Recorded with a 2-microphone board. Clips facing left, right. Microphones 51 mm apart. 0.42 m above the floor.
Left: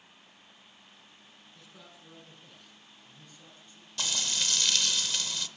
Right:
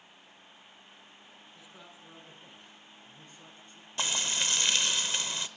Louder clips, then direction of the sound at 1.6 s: Even; 15° right (ahead or behind).